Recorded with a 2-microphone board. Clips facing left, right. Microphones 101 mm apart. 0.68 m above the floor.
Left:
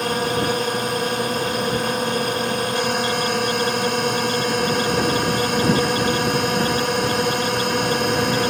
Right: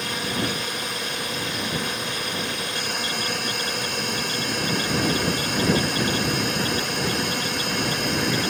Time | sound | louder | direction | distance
0.0 | a drone | left 7 dB | 45° left (ahead or behind) | ?